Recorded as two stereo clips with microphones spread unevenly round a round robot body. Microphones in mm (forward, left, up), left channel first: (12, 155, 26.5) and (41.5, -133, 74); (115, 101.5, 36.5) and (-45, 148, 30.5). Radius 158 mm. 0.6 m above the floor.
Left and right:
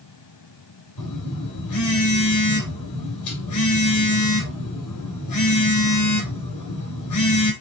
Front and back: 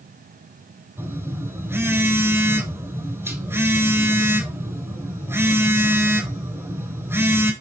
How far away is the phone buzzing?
About 3 m.